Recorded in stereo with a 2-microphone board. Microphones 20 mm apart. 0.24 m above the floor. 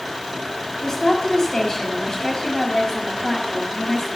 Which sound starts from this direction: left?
A woman speaking, at 0.8 s.